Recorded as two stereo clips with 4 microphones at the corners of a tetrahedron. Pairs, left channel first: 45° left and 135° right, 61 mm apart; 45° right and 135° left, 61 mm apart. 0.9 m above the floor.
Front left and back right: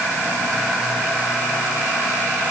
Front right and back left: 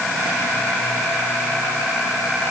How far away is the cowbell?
I don't hear a cowbell.